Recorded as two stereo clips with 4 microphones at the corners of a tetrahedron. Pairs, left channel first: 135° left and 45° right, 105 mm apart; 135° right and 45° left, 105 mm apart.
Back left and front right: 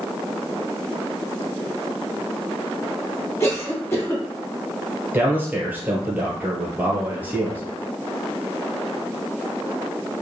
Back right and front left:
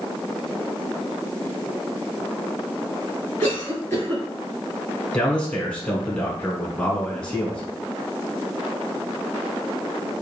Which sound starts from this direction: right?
A man speaking, at 5.1 s.